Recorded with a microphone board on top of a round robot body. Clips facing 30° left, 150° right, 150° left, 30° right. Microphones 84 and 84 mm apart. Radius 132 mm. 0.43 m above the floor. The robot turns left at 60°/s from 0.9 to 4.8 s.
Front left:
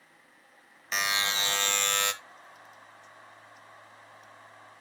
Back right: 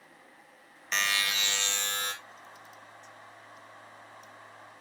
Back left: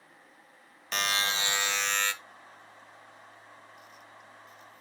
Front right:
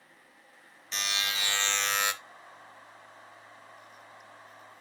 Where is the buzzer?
115° left, 0.7 m; by 2.1 s 40° left, 0.7 m.